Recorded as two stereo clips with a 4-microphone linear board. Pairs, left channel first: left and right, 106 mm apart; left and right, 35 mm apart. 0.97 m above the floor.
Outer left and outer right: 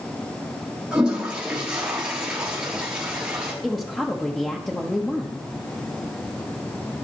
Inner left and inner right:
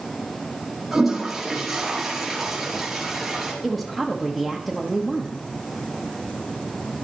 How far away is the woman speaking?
About 0.9 m.